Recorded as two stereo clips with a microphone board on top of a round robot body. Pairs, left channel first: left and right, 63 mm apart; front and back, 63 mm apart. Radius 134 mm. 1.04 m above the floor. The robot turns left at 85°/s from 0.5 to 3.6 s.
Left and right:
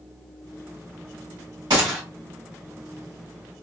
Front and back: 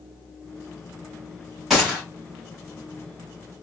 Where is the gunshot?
90° right, 1.8 m; by 2.0 s 120° right, 1.8 m.